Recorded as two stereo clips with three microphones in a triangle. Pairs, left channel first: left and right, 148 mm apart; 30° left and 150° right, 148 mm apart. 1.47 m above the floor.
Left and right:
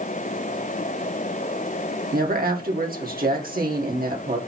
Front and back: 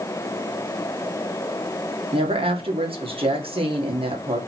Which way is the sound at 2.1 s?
95° right.